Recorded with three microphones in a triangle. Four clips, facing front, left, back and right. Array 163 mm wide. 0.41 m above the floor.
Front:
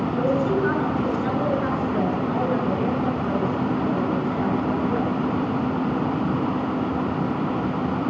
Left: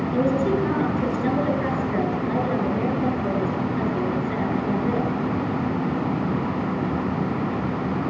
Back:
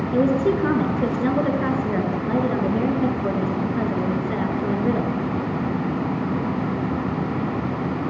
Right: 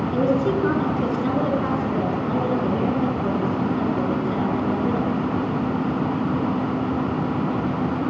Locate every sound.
0.1 s a woman speaking: 170° right, 7 m